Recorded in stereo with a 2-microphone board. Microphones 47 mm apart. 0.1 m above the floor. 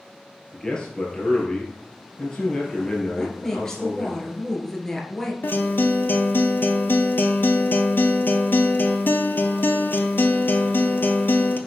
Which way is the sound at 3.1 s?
10° left (ahead or behind).